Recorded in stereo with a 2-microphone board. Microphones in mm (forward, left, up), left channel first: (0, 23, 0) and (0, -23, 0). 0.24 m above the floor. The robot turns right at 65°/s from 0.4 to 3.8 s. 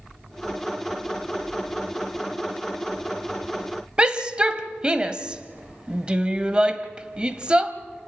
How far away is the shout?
About 1.1 m.